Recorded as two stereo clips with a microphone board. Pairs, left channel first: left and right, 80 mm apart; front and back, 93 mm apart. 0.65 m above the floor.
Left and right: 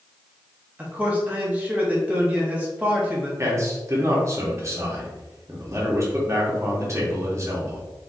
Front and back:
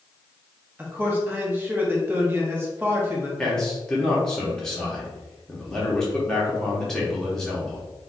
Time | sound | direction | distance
0.8 | a man speaking | 145° right | 1.0 m
3.4 | a man speaking | 80° right | 1.2 m